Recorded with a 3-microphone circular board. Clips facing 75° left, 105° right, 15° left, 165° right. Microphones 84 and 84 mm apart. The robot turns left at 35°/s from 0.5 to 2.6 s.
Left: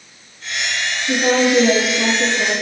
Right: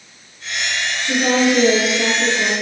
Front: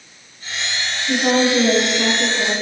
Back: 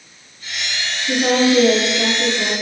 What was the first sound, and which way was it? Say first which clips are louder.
A woman speaking: left 1 dB, back 1 dB; 160° left.